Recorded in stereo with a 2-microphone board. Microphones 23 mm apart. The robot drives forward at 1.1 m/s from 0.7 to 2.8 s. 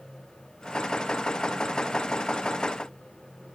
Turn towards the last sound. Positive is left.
No sound to turn to.